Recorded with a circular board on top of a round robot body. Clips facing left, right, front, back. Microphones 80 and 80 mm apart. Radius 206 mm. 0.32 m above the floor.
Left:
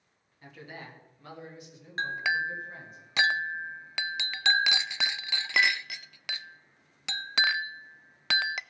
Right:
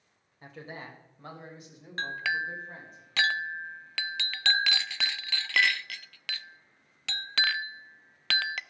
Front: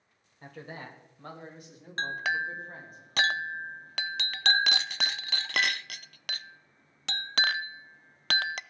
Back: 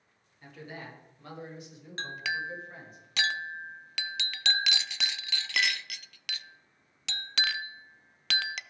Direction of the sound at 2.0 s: 25° left.